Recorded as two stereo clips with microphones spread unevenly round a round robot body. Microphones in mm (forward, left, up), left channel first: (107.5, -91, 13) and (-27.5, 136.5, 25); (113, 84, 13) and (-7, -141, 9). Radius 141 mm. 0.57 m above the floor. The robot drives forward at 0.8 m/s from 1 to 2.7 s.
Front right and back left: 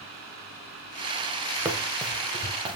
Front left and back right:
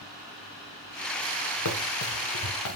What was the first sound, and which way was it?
Running footsteps, 40° left.